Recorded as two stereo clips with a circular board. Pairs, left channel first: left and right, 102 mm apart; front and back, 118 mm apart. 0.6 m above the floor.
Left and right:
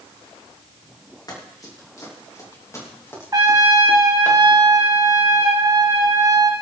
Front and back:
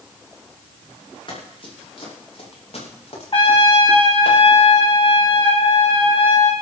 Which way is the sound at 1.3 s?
40° left.